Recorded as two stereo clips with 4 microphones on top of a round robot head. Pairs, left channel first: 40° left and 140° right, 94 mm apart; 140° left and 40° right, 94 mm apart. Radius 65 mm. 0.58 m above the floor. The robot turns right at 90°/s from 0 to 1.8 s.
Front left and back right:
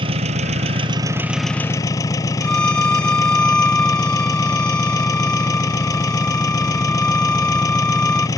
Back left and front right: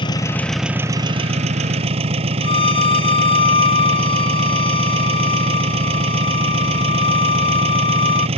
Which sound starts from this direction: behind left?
A violin, at 2.4 s.